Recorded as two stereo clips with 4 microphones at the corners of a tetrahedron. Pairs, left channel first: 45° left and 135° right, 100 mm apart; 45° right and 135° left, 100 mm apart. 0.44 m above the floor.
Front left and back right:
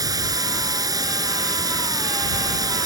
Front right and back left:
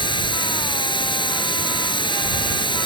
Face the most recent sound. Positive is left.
turn(degrees=-80)